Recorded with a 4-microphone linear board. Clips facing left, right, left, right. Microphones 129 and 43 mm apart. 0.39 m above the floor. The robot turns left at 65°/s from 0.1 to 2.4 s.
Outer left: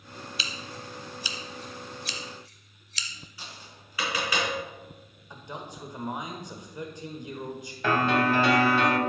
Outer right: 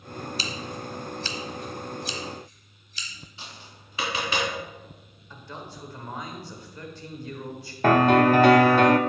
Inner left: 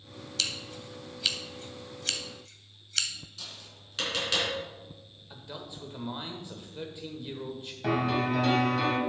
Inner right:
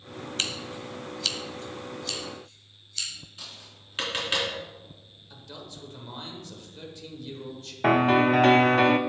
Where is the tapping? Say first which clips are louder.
Outer right 1 dB, inner right 1 dB; 25° right (ahead or behind), 3.5 m.